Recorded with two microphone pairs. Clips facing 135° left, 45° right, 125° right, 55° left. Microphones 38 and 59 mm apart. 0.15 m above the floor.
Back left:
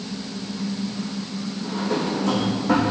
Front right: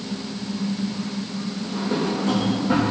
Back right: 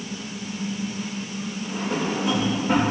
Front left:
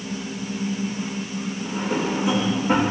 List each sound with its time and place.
1.6 s a drawer: 135° left, 5 m